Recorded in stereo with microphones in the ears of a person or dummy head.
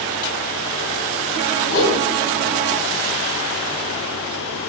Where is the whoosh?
65° left (ahead or behind), 3 m.